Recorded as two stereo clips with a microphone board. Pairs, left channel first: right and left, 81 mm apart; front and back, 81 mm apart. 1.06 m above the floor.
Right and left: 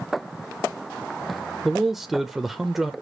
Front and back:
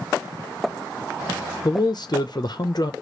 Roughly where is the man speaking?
Ahead.